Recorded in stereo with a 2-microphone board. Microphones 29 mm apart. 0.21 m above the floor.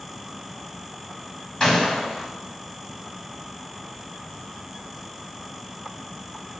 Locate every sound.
1.6 s a gunshot: 25° left (ahead or behind), 1.5 m